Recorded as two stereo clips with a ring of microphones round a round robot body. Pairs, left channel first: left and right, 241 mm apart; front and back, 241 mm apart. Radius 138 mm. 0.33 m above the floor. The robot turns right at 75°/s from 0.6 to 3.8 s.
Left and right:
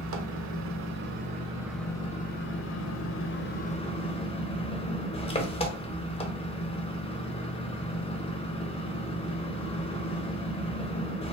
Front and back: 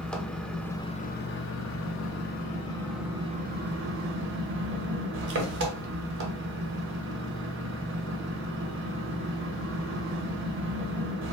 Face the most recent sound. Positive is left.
turn(degrees=155)